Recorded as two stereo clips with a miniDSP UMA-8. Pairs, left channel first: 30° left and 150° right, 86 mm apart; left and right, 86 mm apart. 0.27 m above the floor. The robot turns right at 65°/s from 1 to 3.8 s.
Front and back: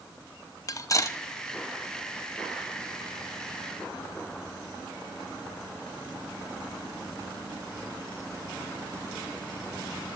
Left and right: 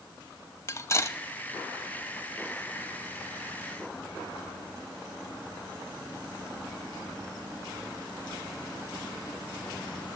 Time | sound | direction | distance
0.7 | cutlery clinking | 50° left | 0.7 m